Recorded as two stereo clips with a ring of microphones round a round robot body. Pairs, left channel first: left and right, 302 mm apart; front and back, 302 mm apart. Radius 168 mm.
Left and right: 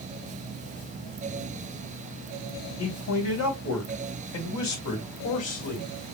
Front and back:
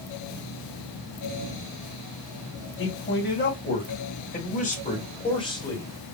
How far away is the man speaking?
About 3.5 m.